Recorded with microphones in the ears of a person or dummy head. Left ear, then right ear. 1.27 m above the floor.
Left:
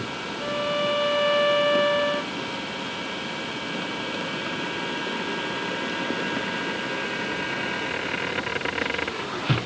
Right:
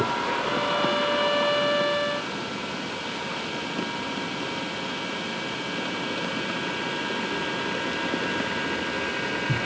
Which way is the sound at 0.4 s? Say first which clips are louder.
Left 3 dB; 20° left (ahead or behind).